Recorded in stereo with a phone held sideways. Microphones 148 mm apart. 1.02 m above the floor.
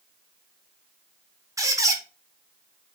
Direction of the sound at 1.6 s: 20° right (ahead or behind).